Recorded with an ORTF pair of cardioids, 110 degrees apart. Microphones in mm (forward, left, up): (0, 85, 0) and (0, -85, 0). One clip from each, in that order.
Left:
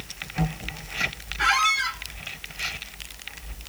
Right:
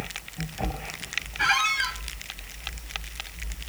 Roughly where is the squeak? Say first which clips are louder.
Left 2 dB; ahead.